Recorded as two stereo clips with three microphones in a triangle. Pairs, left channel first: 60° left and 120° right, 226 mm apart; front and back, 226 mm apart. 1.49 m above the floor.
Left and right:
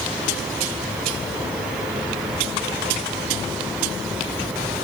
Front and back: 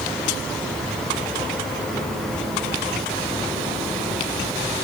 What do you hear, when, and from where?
Only background noise.